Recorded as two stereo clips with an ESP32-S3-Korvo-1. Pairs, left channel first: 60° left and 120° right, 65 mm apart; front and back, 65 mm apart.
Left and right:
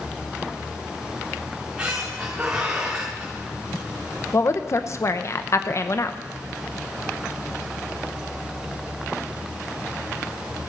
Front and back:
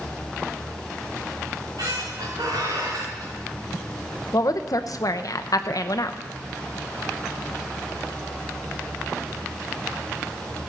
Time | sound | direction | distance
1.5 | a squeak | 165° left | 3.5 m
4.3 | a woman speaking | 20° left | 0.8 m